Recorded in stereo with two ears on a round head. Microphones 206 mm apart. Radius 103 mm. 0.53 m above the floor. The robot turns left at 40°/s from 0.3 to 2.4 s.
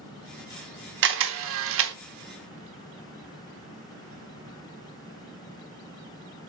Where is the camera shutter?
50° right (ahead or behind), 0.9 m; by 1.9 s 55° right (ahead or behind), 0.9 m.